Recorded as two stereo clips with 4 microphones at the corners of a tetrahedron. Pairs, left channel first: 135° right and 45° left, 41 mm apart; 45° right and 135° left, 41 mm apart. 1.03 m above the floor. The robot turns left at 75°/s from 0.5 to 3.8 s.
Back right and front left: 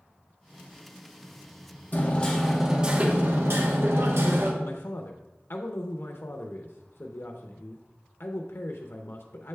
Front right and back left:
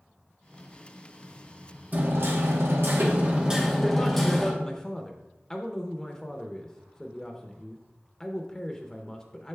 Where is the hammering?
175° right, 1.1 m; by 4.5 s 40° left, 1.1 m.